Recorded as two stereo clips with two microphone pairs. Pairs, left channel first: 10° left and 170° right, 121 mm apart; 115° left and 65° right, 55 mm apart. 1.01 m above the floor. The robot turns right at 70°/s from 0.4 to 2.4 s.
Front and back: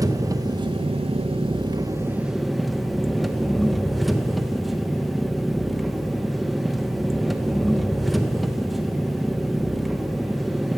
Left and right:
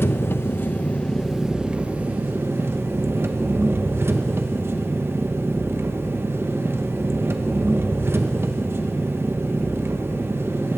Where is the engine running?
135° left, 0.8 m; by 10.8 s 85° right, 0.8 m.